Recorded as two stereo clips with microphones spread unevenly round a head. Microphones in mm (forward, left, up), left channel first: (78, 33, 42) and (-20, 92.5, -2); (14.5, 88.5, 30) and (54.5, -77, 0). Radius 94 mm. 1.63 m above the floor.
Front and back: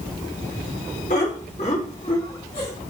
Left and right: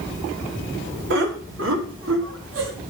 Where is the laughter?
65° right, 1.9 m; by 2.7 s 85° right, 2.5 m.